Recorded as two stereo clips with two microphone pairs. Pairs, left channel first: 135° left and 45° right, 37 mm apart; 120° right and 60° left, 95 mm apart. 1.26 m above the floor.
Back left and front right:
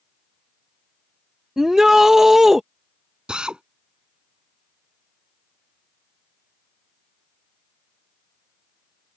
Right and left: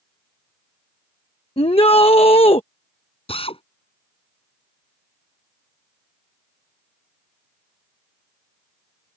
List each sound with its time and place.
1.6 s a shout: 120° right
3.3 s a drill: 110° right